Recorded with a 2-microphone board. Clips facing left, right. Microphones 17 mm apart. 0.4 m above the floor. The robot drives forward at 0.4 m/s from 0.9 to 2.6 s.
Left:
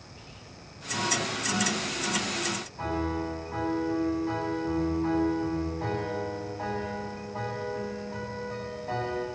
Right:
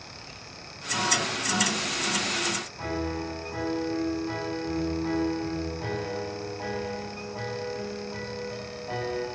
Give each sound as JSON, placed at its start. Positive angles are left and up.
{"t": 0.1, "sound": "whispering", "side_deg": 45, "distance_m": 8.5}
{"t": 2.8, "sound": "a piano", "side_deg": 30, "distance_m": 8.0}